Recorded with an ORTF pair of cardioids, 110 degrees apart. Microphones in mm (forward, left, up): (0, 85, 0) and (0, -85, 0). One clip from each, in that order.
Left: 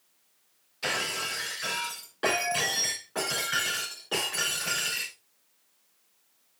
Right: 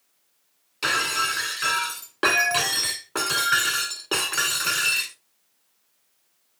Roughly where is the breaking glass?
Ahead right.